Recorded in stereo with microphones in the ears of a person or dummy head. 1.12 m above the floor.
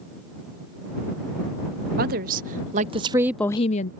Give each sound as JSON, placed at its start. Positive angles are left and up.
{"t": 2.0, "sound": "a woman speaking", "side_deg": -50}